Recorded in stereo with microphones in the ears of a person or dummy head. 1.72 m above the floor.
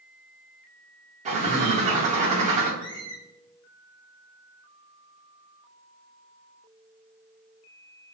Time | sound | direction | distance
1.2 | a bird | 40° right (ahead or behind) | 0.7 m
2.8 | a squeak | 50° left (ahead or behind) | 1.2 m